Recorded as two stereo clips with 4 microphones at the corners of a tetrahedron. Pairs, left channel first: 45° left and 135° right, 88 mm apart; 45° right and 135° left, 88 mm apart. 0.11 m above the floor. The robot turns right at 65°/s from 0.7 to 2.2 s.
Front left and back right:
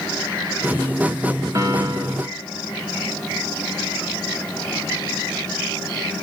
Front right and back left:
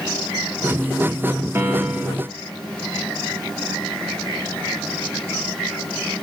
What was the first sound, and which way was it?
A piano, 175° right.